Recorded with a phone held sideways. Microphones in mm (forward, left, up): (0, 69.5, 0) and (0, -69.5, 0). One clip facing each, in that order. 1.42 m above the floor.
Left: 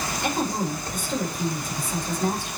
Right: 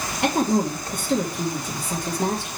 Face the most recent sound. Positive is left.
turn(degrees=-70)  # may be behind; listen again after turning